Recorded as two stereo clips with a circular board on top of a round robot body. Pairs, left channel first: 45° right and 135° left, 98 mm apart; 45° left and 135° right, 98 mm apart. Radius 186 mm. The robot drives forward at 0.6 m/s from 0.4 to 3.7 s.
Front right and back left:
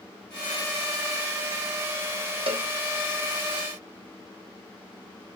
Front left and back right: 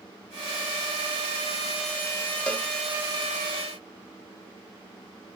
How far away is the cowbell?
About 3 m.